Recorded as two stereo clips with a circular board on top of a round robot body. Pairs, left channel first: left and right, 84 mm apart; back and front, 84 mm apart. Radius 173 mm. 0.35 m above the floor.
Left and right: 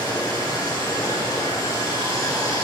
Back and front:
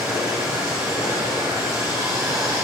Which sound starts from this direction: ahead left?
Running water, at 0.0 s.